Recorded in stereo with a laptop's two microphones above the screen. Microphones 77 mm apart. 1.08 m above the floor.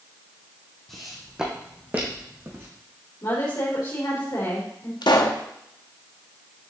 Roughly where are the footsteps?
Centre.